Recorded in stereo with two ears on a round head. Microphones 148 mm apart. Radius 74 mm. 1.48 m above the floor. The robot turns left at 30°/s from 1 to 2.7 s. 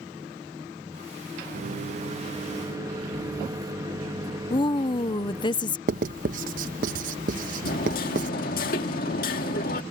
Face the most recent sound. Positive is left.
turn(degrees=55)  # may be behind; listen again after turning